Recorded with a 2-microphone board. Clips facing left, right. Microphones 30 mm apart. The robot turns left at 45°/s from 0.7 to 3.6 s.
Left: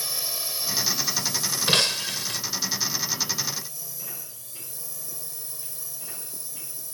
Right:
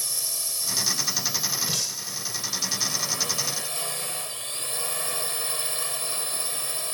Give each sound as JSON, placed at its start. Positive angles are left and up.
{"t": 0.0, "sound": "a drone", "azimuth_deg": 15}
{"t": 1.7, "sound": "breaking glass", "azimuth_deg": 115}